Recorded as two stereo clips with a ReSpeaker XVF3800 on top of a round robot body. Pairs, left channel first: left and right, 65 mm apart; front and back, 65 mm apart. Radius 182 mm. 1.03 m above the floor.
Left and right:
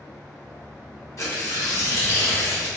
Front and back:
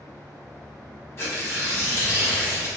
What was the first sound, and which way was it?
Tearing paper, 50° left.